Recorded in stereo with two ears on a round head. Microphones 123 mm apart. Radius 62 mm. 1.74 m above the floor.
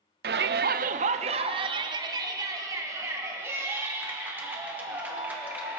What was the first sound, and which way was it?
A shout, 80° right.